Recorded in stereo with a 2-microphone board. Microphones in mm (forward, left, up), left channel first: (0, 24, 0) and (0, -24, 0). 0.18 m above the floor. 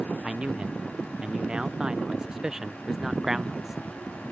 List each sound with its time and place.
0.2 s a man speaking: 20° right (ahead or behind); by 3.8 s 5° right (ahead or behind)